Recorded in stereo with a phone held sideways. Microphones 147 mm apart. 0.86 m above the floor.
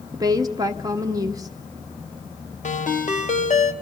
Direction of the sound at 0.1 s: 25° right (ahead or behind).